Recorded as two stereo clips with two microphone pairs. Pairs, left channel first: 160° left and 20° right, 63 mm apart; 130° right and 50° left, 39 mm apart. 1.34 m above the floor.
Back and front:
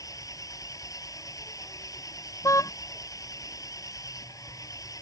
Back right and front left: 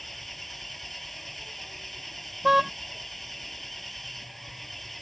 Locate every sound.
0.0 s an engine running: 145° left
2.4 s a car horn: 135° left